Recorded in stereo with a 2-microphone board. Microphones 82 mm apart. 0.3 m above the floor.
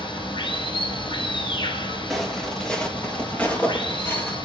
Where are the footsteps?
5° left (ahead or behind), 4.5 m; by 4.4 s 25° left (ahead or behind), 5.5 m.